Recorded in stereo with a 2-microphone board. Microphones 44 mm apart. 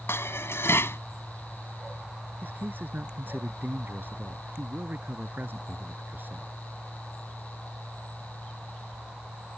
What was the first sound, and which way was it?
Dishes clattering, 85° left.